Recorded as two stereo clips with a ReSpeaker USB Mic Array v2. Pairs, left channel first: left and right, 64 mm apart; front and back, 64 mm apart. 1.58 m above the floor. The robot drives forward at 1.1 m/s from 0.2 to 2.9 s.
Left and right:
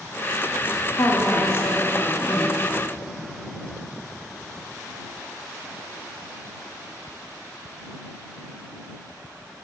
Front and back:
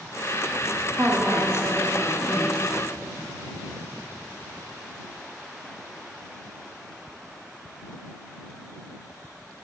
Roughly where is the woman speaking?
Behind left.